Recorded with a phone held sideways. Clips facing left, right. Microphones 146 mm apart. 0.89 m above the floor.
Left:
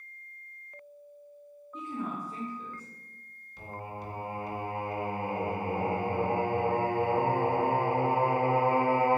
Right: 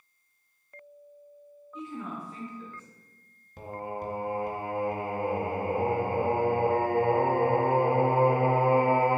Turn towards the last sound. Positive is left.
turn(degrees=-50)  # may be behind; listen again after turning